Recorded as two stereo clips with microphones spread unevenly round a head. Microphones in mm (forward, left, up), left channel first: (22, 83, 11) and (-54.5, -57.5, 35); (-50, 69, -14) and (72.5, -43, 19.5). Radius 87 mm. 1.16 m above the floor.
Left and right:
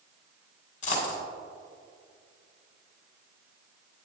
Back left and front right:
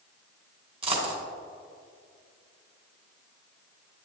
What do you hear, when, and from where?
0.8 s a dropped coin: 10° left, 2.5 m